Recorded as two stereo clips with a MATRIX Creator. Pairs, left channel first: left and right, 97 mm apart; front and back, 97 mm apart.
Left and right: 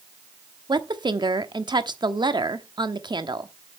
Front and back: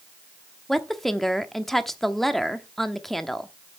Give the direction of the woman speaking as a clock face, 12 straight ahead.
3 o'clock.